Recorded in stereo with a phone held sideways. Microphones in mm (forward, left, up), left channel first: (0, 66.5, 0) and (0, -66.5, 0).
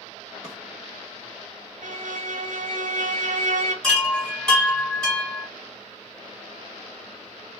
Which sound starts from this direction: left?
A drawer, at 0.4 s.